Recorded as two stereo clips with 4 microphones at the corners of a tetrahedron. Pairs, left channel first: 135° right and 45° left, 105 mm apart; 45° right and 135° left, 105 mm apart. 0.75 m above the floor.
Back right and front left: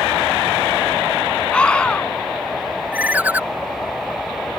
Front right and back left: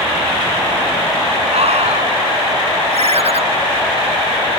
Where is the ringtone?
120° left.